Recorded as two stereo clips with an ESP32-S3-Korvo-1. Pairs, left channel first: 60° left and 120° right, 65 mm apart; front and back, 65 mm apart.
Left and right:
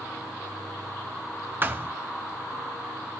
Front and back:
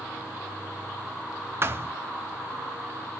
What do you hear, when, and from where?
1.6 s a thud: 160° right, 1.1 m